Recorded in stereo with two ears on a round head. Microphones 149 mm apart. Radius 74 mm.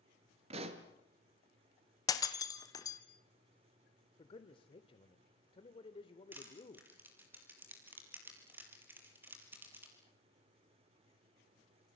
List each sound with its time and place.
0.5 s a pop: 40° right (ahead or behind), 2.5 m
2.1 s breaking glass: 20° left (ahead or behind), 2 m
4.2 s a man speaking: 35° left (ahead or behind), 1.6 m
6.3 s crushing: 10° right (ahead or behind), 6 m